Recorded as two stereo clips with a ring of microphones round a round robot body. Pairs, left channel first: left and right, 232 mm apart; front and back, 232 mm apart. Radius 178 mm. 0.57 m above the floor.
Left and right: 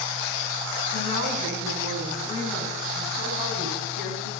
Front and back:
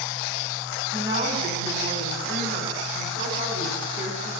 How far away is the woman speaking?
About 5.5 m.